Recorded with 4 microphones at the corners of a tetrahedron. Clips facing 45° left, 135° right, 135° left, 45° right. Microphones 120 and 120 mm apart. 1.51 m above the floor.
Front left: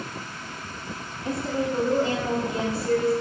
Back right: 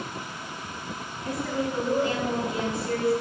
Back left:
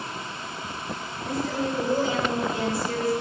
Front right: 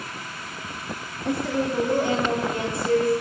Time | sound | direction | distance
1.2 | a woman speaking | 20° right | 3 m